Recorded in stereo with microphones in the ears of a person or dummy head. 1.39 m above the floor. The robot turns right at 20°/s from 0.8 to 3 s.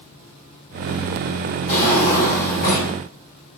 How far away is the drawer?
About 1.5 m.